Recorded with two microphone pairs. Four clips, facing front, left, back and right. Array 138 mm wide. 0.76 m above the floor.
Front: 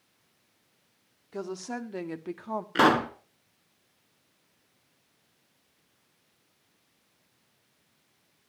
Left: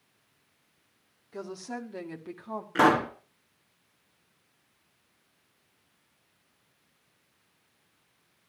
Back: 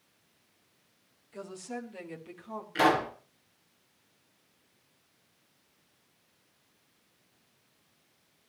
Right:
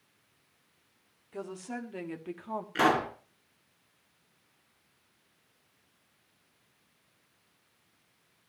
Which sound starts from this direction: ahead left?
A pop, at 2.8 s.